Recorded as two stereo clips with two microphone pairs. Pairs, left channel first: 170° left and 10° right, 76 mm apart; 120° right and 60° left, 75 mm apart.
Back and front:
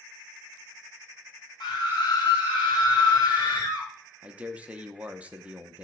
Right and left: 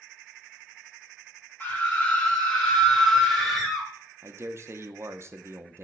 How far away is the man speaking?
About 0.6 m.